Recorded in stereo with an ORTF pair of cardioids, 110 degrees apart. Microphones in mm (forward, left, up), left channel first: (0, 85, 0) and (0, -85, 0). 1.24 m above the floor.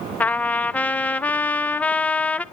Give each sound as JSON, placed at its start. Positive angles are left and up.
{"t": 0.2, "sound": "a trumpet", "azimuth_deg": 10, "distance_m": 0.7}